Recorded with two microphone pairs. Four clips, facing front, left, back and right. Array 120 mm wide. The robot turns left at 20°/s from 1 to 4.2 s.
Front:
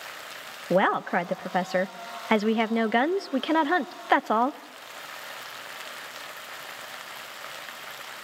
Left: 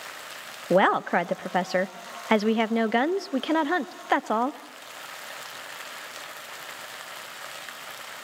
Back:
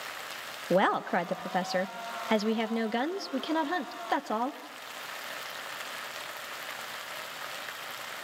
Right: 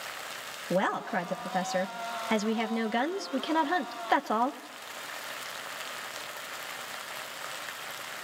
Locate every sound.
0.7 s a woman speaking: 80° left, 0.6 m; by 4.6 s 15° left, 0.6 m